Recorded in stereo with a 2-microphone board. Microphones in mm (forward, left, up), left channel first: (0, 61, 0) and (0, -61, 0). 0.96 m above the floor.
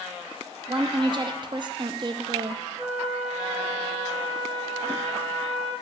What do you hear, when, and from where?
0.7 s a woman speaking: 40° right (ahead or behind), 0.6 m
2.8 s a flute: 55° right (ahead or behind), 1.7 m